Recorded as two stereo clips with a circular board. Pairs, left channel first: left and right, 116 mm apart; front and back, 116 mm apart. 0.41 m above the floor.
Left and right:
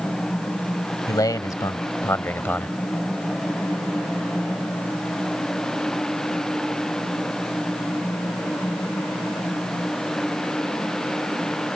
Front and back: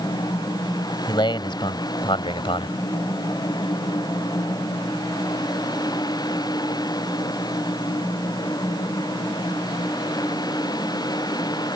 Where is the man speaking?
40° left; by 2.8 s 15° left.